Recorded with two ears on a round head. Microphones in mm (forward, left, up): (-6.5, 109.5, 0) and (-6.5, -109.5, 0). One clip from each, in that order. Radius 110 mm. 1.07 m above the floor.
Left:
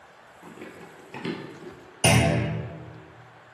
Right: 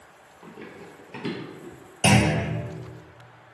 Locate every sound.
0.4 s running footsteps: 5° left (ahead or behind), 1.1 m; by 1.7 s 15° left (ahead or behind), 1.2 m
2.0 s a clunk: 5° left (ahead or behind), 0.7 m